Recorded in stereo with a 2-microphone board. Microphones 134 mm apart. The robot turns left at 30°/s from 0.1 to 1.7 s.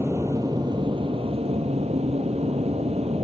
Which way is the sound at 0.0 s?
25° right.